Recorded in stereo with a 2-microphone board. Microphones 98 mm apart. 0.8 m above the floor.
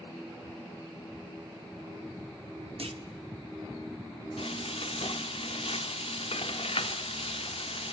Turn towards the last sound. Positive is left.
turn(degrees=75)  # may be behind; listen again after turning